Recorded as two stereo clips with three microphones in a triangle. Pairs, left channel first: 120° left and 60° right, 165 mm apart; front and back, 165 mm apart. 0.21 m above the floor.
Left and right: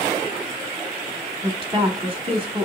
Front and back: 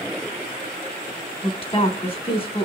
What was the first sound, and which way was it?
A woman speaking, 35° right.